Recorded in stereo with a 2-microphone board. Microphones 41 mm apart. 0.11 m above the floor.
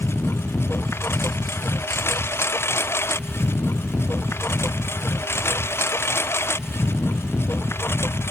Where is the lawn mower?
85° left.